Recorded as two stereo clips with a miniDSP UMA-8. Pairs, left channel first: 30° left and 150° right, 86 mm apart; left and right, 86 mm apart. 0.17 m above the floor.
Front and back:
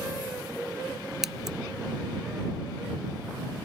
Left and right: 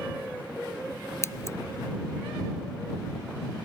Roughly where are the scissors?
Behind left.